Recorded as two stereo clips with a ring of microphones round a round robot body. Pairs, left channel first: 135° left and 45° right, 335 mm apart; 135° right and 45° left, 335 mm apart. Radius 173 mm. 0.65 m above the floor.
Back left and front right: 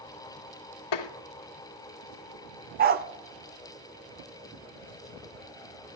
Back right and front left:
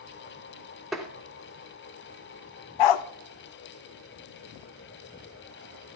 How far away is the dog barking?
About 0.5 m.